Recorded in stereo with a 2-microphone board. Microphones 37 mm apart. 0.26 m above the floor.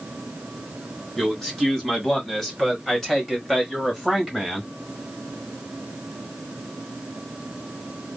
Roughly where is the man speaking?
Centre.